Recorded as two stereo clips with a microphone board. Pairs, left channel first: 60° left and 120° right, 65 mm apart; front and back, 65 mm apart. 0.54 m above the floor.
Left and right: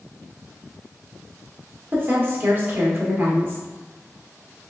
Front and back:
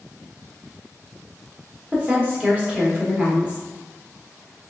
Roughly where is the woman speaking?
Behind right.